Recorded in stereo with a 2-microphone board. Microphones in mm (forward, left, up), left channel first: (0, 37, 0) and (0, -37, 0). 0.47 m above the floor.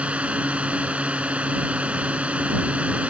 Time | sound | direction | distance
0.0 | a drone | 15° right (ahead or behind) | ?